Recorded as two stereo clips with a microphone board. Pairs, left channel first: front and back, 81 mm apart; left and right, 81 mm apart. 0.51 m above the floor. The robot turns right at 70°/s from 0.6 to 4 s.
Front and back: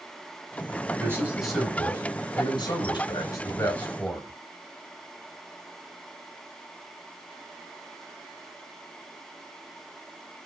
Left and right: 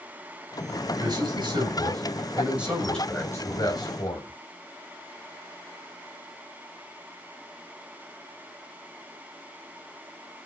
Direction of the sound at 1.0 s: 130° right.